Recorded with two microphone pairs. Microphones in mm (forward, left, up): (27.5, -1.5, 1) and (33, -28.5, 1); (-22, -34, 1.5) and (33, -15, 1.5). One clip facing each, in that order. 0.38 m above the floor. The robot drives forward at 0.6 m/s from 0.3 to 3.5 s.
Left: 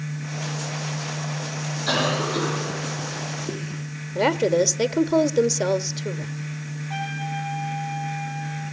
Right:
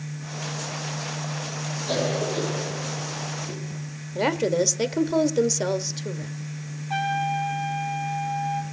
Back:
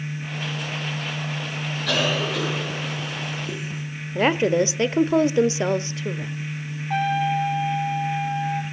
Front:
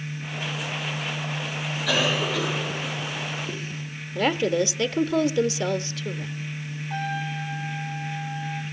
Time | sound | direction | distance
1.9 | a cough | 105° left | 4 m
4.2 | a woman speaking | 175° left | 1.0 m
6.9 | a trumpet | 155° right | 3.5 m